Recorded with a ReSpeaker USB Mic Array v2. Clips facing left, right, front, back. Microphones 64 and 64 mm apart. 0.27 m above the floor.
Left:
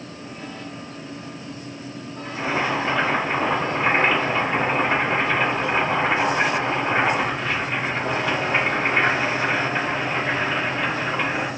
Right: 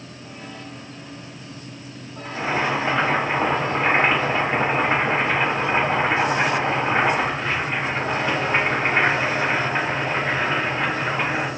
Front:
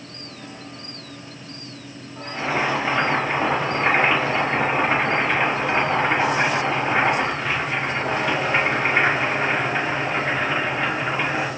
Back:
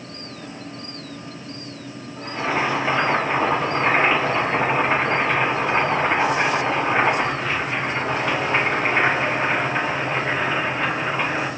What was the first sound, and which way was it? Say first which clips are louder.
Boiling: right 1 dB, back 1 dB; 85° right.